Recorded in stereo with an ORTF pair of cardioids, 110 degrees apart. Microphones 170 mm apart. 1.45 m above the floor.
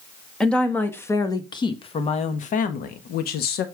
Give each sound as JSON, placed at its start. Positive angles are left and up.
{"t": 0.4, "sound": "a woman speaking", "azimuth_deg": 5, "distance_m": 1.8}